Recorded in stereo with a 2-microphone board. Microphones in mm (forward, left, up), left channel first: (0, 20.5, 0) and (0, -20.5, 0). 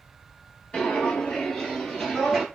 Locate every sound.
0.7 s footsteps: 20° left (ahead or behind), 1.7 m; by 2.5 s 5° right (ahead or behind), 1.6 m